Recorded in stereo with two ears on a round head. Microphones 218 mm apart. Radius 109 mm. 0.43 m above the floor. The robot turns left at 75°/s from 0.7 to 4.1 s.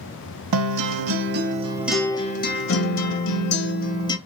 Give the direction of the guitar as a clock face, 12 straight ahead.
3 o'clock.